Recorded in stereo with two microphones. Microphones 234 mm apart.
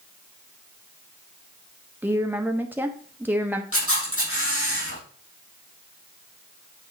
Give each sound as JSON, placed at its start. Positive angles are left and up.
{"t": 2.0, "sound": "a woman speaking", "side_deg": -10, "distance_m": 1.0}
{"t": 3.7, "sound": "a camera shutter", "side_deg": 70, "distance_m": 6.0}